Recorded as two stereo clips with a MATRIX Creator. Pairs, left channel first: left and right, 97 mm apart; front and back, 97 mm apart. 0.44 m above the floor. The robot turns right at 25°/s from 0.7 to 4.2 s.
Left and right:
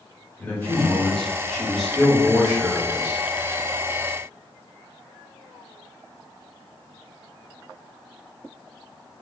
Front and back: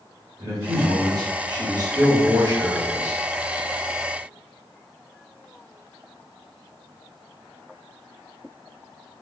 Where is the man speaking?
150° left, 1.4 m; by 3.2 s 150° right, 1.4 m.